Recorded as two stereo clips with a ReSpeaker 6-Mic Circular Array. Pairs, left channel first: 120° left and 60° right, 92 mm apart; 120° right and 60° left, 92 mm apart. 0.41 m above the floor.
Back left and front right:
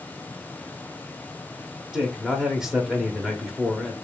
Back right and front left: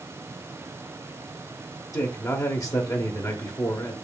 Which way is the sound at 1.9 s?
140° right.